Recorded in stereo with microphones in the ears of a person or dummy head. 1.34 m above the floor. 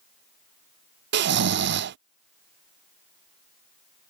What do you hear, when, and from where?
1.1 s snoring: 55° right (ahead or behind)